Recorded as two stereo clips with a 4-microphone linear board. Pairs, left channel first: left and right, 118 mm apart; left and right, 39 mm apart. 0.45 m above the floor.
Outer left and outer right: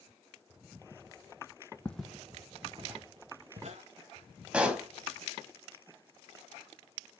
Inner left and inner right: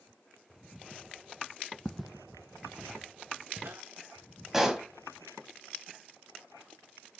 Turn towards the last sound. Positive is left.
turn(degrees=-10)  # may be behind; listen again after turning